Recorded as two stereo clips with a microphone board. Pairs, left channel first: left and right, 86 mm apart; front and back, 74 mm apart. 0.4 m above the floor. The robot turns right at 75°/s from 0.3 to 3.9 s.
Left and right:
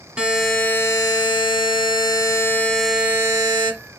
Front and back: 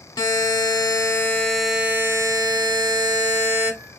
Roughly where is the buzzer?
Ahead.